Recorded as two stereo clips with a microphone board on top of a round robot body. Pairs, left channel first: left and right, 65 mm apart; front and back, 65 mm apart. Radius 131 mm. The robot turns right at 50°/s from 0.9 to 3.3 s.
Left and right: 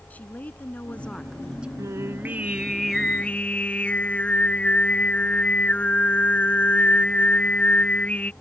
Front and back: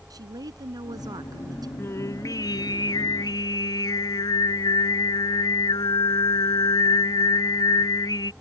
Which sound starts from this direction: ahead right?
Singing, at 1.8 s.